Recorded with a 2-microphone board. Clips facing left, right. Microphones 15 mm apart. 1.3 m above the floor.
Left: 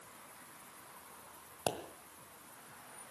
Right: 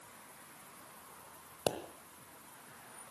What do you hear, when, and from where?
1.7 s a pop: 30° right (ahead or behind), 1.3 m